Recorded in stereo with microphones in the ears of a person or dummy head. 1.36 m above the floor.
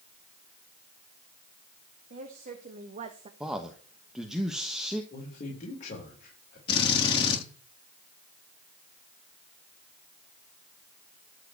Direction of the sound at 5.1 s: 45° left (ahead or behind).